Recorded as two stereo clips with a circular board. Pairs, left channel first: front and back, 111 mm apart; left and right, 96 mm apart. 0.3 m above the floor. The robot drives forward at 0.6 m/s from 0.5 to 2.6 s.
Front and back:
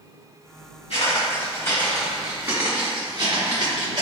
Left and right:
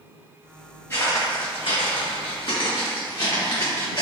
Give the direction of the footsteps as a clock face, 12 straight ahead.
11 o'clock.